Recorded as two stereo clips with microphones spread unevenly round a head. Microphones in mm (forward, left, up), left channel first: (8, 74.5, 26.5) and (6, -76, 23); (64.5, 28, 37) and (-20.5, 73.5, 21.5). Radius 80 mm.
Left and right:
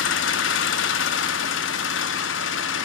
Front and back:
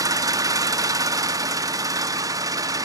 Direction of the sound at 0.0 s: 95° left.